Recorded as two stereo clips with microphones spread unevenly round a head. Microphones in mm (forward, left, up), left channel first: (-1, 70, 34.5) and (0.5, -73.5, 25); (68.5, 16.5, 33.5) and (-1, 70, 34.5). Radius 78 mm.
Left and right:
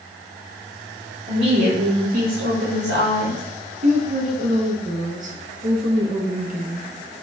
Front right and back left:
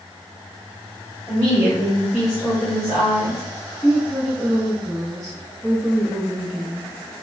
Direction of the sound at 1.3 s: 145° right.